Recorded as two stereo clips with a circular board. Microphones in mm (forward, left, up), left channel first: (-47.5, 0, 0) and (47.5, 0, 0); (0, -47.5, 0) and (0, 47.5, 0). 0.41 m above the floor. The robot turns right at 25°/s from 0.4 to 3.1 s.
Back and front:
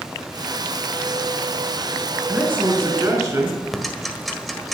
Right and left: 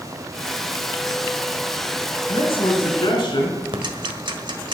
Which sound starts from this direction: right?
A man speaking, at 2.3 s.